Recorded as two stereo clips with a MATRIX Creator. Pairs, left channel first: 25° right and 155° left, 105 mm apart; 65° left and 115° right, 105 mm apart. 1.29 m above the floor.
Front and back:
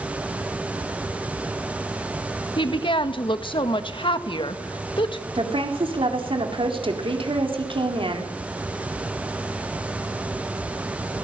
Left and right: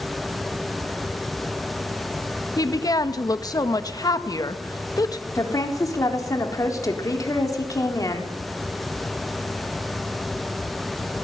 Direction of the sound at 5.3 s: 125° left.